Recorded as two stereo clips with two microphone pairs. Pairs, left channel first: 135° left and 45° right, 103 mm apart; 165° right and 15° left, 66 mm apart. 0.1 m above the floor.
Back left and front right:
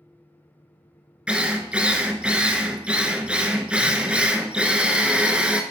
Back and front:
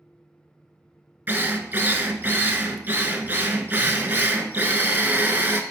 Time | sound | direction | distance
1.3 | a drill | 20° left | 0.7 m